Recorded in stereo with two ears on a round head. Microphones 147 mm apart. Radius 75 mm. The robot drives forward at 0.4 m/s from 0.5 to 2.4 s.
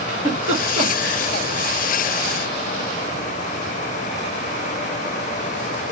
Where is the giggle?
35° right (ahead or behind), 1.7 m; by 1.2 s 40° right (ahead or behind), 1.5 m.